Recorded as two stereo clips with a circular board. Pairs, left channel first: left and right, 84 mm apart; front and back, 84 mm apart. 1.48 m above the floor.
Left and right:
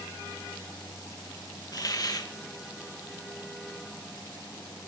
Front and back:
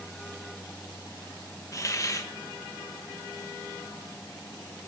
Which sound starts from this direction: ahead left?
A hiss, at 1.7 s.